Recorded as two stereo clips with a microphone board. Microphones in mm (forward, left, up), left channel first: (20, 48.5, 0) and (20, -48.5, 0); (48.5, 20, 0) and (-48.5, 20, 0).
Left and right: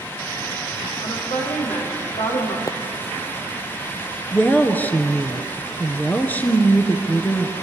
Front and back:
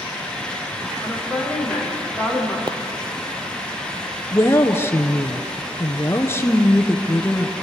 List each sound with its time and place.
1.0 s a woman speaking: 90° left, 8.5 m
2.7 s a pop: 140° left, 0.6 m
4.3 s a woman speaking: 35° left, 1.6 m